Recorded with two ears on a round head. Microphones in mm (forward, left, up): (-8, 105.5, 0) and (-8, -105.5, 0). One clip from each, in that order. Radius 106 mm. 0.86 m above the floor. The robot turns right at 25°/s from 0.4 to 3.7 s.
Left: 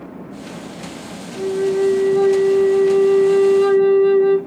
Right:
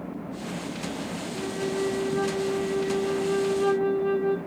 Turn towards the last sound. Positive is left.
turn(degrees=55)